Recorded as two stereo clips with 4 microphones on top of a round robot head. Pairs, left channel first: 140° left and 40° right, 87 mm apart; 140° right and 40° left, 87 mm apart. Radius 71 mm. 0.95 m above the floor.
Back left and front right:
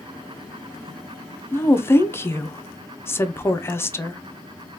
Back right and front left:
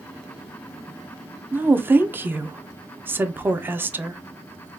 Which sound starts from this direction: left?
A woman speaking, at 1.5 s.